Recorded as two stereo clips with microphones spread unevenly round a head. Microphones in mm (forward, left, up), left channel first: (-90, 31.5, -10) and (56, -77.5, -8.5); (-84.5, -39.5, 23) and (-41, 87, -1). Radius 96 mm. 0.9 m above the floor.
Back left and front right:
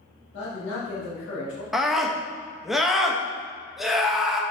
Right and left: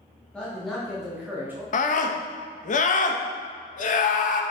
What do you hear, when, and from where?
0.3 s a man speaking: 165° left, 1.8 m; by 1.6 s 140° left, 1.7 m
1.7 s a scream: 125° right, 0.9 m